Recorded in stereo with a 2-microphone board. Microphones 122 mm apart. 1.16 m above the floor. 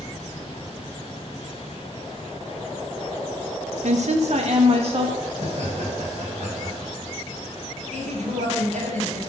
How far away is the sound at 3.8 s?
About 0.9 m.